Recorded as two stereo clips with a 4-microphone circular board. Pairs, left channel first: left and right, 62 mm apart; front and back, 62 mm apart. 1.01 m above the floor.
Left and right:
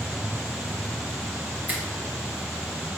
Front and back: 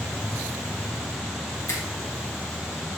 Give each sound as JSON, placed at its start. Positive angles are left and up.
{"t": 1.7, "sound": "a finger snap", "azimuth_deg": -30, "distance_m": 1.0}